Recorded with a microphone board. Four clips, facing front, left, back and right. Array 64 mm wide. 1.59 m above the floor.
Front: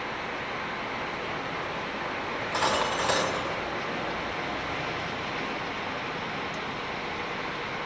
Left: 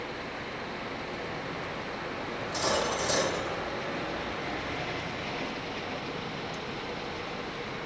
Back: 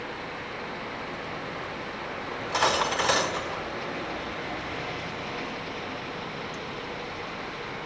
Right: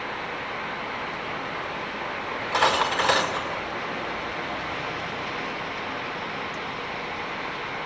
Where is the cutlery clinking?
100° right, 4.5 m.